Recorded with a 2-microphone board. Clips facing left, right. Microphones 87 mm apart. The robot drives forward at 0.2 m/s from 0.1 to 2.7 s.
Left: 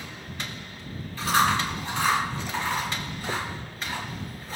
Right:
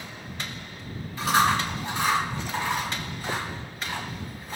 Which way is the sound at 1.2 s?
20° right (ahead or behind).